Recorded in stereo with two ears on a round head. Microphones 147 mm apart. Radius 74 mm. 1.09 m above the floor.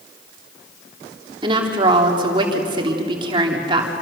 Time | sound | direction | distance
1.4 | a woman speaking | 30° right (ahead or behind) | 3 m